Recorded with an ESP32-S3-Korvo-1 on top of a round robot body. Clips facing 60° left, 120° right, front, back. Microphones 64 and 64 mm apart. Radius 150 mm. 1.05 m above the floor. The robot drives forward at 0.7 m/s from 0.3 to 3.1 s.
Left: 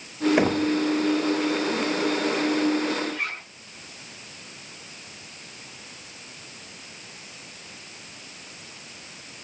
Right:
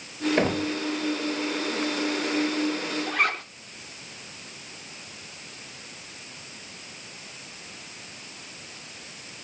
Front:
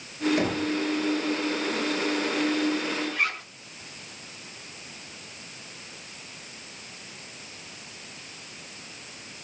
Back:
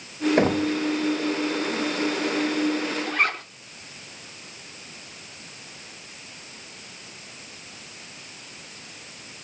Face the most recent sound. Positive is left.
turn(degrees=-140)